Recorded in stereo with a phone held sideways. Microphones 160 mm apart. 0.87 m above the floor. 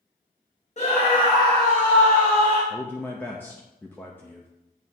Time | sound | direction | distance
0.8 | a scream | 45° left (ahead or behind) | 1.5 m
2.7 | a man speaking | 10° left (ahead or behind) | 0.7 m